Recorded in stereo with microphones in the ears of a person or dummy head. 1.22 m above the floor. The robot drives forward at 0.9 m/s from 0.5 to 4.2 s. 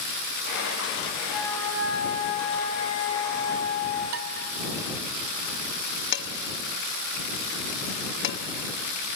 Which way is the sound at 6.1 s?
70° left (ahead or behind).